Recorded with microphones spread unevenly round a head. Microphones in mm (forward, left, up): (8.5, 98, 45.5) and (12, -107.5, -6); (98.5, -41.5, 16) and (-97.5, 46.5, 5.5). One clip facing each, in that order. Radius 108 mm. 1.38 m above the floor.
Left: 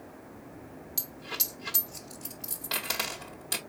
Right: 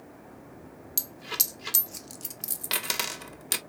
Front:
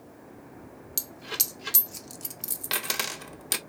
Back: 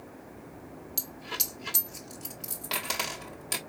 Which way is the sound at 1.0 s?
50° right.